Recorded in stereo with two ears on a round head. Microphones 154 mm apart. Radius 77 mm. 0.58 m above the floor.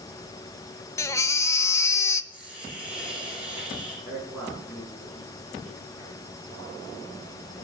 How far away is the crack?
I don't hear a crack.